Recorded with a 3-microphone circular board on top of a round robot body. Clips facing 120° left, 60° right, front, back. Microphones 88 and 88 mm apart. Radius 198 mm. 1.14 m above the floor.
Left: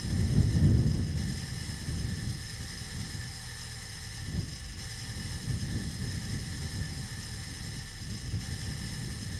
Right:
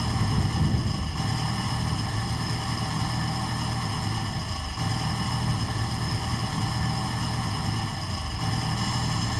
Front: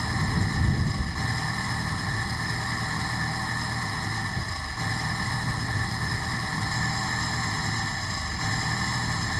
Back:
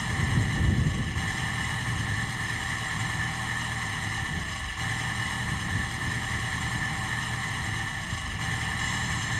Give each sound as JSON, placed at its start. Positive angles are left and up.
{"t": 0.0, "sound": "an engine running", "azimuth_deg": -75}